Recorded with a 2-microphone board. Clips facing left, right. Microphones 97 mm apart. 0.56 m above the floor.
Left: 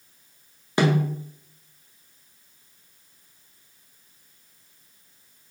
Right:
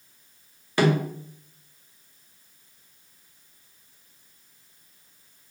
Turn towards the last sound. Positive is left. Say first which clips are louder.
# even
turn(degrees=20)  # may be behind; listen again after turning